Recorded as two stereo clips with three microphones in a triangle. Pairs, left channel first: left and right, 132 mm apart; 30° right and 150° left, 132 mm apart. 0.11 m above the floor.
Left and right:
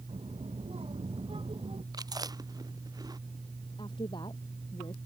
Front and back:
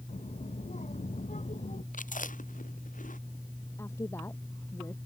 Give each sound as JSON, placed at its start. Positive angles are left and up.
{"t": 0.1, "sound": "a child speaking", "azimuth_deg": -50}
{"t": 1.9, "sound": "chewing", "azimuth_deg": -30}
{"t": 3.8, "sound": "a woman speaking", "azimuth_deg": 40}